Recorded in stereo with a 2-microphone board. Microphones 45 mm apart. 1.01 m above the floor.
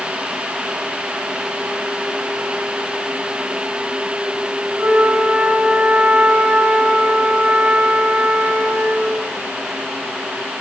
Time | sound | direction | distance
4.8 | a flute | 35° right (ahead or behind) | 5.5 m